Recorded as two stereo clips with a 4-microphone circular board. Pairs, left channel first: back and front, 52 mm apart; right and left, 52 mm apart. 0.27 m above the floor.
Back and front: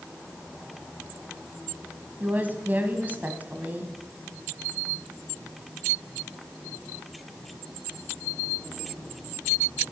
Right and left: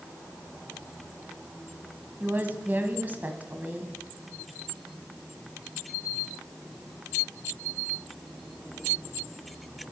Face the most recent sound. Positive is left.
turn(degrees=45)